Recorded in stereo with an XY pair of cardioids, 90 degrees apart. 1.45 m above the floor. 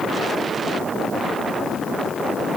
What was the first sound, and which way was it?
Only background noise.